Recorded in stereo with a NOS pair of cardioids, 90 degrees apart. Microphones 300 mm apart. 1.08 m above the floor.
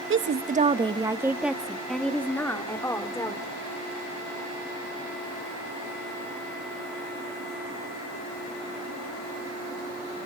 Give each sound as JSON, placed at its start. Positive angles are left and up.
{"t": 0.1, "sound": "a woman speaking", "azimuth_deg": -45, "distance_m": 0.9}